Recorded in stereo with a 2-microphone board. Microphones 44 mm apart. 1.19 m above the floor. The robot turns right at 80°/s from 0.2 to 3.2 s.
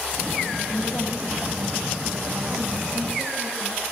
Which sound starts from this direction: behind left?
A woman speaking, at 0.7 s.